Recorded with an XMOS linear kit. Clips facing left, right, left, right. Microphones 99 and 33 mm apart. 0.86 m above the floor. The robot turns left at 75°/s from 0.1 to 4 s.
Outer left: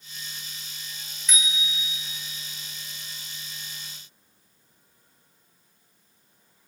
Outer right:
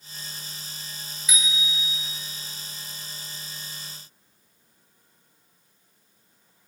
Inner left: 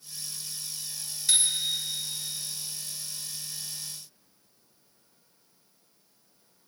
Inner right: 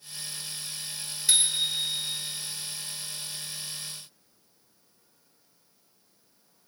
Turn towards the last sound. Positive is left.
turn(degrees=150)